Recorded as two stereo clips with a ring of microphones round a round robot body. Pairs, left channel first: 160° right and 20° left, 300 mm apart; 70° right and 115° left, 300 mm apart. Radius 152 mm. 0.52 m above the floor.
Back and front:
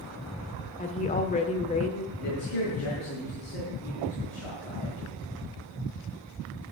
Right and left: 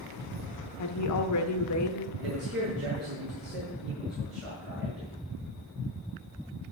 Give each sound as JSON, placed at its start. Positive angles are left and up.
{"t": 0.8, "sound": "a woman speaking", "azimuth_deg": -95, "distance_m": 1.5}
{"t": 2.2, "sound": "a man speaking", "azimuth_deg": 160, "distance_m": 6.0}